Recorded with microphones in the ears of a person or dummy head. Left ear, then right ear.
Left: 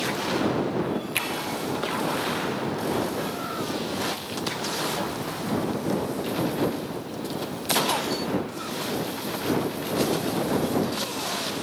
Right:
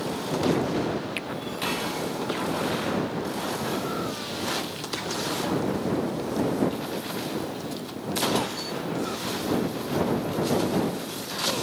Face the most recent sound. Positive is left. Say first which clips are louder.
# left 6 dB
turn(degrees=30)  # may be behind; listen again after turning